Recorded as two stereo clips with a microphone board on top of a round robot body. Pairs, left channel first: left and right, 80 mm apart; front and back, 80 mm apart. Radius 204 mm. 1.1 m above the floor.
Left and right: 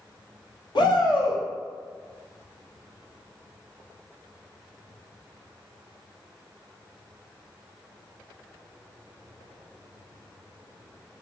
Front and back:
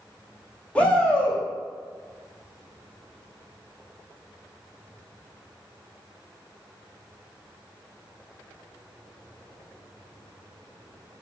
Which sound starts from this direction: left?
A shout, at 0.8 s.